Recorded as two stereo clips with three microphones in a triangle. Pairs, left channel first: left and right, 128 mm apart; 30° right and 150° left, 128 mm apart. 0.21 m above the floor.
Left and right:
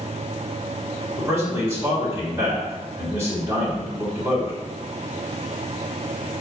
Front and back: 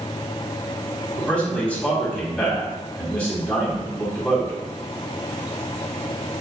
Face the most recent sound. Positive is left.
turn(degrees=-95)